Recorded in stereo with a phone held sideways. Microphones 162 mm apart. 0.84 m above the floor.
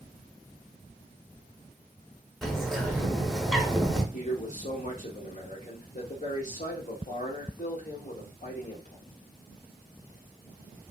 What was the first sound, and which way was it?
A bird, centre (ahead or behind).